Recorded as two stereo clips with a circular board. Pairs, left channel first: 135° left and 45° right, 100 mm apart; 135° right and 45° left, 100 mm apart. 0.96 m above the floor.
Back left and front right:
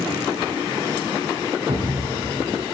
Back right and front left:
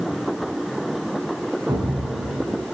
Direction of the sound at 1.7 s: 10° right.